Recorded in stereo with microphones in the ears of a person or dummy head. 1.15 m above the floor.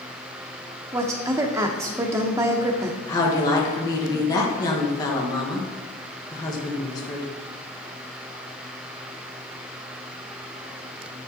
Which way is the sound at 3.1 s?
20° left (ahead or behind).